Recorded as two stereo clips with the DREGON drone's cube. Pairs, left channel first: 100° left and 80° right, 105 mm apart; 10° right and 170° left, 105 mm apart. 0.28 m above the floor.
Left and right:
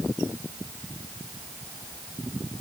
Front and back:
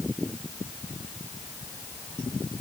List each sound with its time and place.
Only background noise.